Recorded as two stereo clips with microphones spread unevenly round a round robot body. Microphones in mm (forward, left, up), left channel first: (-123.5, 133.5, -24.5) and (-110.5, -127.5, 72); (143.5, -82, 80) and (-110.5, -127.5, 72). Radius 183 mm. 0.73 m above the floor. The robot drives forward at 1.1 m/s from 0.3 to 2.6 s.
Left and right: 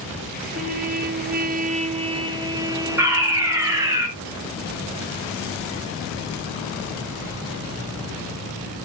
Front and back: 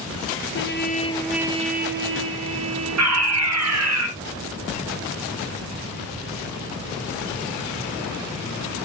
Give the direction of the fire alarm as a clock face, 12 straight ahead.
6 o'clock.